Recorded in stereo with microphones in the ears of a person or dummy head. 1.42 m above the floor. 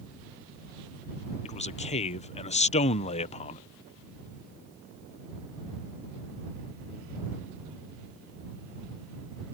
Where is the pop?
No pop in this recording.